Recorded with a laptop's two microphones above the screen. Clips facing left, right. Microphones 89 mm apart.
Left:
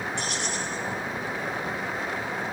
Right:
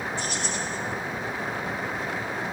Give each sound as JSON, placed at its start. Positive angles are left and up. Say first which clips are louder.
{"t": 0.2, "sound": "keys jangling", "louder": "even", "side_deg": 75, "distance_m": 5.5}